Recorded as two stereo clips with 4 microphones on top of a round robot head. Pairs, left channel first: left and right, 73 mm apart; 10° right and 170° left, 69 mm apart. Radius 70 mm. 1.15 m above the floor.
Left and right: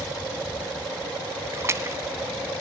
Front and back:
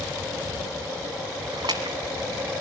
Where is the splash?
140° right, 1.8 m.